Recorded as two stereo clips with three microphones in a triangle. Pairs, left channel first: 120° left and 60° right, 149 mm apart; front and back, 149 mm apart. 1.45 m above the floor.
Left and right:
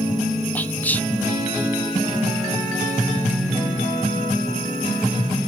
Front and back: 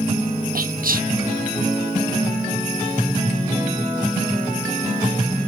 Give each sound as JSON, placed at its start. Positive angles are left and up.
{"t": 0.6, "sound": "whispering", "azimuth_deg": -160, "distance_m": 0.5}